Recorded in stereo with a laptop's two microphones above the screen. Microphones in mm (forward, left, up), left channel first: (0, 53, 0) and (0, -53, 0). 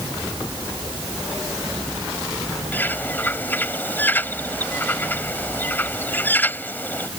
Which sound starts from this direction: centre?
A bird, at 2.7 s.